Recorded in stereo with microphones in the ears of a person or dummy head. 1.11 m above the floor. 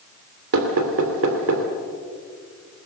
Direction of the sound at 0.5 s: 80° right.